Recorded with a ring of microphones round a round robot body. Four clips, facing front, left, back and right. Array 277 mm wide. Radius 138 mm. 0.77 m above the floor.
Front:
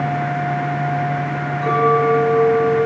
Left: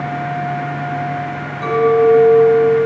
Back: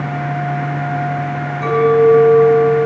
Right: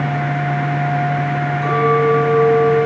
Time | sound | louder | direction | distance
1.6 | a clink | left 4 dB, back 5 dB | 145° left | 4 m